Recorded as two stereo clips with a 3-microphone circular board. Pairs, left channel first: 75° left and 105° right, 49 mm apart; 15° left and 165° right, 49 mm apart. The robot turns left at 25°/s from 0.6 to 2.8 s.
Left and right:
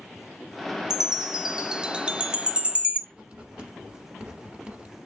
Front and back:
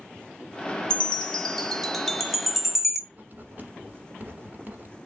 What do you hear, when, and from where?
0.9 s a chime: 40° right, 1.0 m; by 3.0 s 90° right, 1.0 m
3.1 s writing: 155° right, 1.3 m